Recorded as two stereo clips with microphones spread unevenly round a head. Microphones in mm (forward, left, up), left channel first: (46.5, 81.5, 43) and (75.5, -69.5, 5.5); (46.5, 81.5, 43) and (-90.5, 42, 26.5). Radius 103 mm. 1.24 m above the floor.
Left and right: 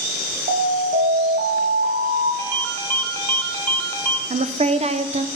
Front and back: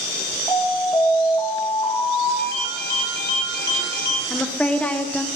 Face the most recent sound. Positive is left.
turn(degrees=-70)